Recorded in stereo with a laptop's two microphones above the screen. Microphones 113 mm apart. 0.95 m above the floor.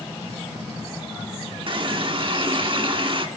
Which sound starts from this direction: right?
A running tap, at 1.7 s.